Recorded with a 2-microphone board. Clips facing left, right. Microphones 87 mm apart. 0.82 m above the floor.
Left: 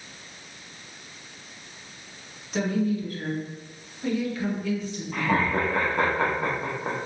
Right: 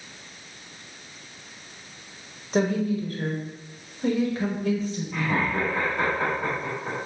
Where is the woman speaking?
40° right (ahead or behind), 1.0 m.